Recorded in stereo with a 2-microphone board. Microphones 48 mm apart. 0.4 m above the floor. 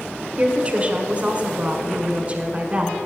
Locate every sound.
0.4 s a woman speaking: 25° right (ahead or behind), 1.4 m